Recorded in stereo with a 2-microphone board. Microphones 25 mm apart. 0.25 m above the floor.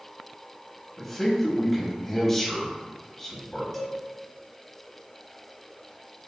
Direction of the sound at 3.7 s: 5° left (ahead or behind).